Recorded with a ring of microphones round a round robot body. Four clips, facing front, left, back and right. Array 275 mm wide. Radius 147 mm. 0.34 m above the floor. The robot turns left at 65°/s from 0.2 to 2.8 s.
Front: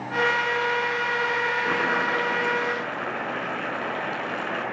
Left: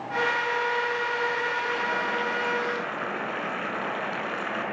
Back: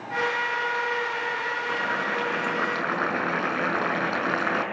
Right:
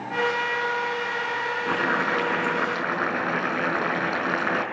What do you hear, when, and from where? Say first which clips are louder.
1.7 s boiling: right 3 dB, front 2 dB; 60° right, 5.5 m; by 4.6 s 135° right, 5.5 m